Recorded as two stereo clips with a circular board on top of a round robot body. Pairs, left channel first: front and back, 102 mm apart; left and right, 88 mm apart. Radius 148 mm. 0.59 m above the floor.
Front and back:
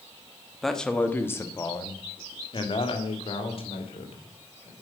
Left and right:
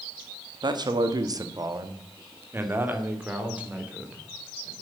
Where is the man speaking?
90° right, 1.5 m; by 4.7 s 10° right, 3.5 m.